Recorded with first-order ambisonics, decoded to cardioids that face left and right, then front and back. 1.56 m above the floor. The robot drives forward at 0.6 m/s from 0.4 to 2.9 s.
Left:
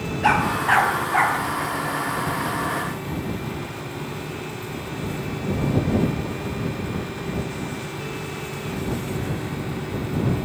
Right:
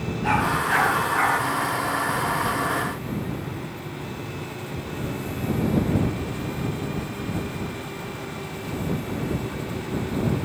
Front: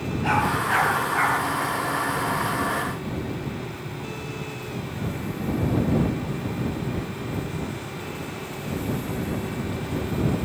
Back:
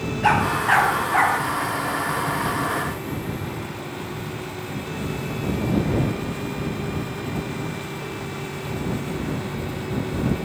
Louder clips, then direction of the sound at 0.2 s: Left 3 dB, back 4 dB; 135° left.